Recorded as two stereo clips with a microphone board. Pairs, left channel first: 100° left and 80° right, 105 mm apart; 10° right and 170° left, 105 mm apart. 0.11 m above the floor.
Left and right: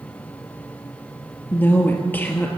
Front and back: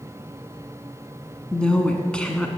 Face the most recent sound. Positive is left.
turn(degrees=60)